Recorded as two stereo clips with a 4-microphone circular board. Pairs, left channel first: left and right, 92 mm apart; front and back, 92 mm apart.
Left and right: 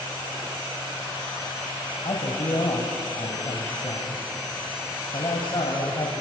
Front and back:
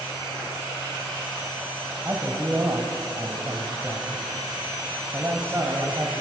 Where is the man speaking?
120° left, 2.5 m.